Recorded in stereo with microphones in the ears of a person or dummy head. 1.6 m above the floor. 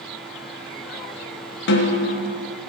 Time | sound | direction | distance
1.7 | a snare drum | 60° left (ahead or behind) | 1.4 m